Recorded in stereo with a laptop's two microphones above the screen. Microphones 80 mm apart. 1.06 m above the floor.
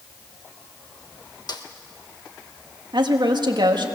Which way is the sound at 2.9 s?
65° right (ahead or behind).